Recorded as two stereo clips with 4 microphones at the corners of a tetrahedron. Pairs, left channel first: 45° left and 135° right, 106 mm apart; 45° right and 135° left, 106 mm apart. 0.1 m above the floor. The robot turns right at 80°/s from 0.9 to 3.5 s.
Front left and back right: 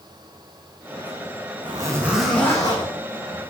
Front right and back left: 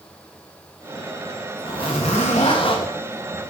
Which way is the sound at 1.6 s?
90° right.